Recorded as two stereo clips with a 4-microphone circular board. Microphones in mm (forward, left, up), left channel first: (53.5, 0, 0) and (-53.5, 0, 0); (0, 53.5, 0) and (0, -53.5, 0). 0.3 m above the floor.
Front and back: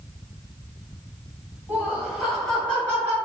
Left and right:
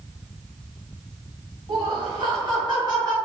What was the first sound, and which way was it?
Laughter, 110° right.